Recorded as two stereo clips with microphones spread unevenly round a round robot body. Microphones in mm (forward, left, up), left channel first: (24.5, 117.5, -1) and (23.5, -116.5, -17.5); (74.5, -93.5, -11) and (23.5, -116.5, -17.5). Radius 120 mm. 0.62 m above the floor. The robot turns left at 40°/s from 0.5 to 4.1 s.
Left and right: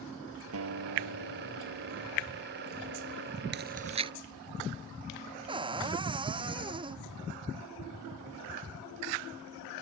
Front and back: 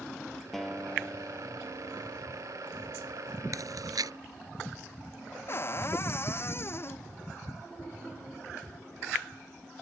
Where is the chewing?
140° right; by 4.1 s 160° right.